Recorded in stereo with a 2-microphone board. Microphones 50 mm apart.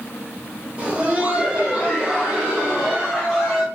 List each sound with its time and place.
0.8 s laughter: 25° right (ahead or behind), 0.9 m; by 3.6 s 5° right (ahead or behind), 1.6 m